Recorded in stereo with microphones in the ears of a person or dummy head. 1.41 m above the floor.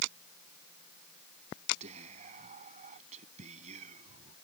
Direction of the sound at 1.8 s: 40° right (ahead or behind).